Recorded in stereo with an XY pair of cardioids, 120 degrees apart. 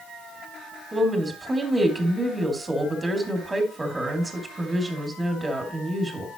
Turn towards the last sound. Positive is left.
turn(degrees=-15)